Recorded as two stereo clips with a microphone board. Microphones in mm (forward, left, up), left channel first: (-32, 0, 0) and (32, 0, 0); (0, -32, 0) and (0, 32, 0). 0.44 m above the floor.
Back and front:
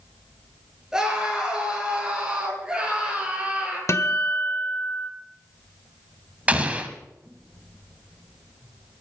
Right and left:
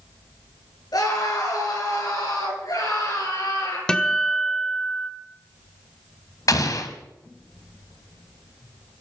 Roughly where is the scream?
Right.